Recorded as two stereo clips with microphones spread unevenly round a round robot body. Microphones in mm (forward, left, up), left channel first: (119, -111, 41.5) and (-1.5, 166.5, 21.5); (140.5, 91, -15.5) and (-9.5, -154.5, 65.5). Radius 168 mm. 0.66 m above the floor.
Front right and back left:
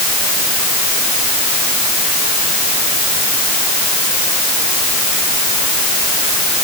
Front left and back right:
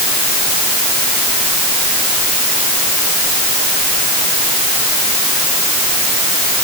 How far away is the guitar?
I don't hear a guitar.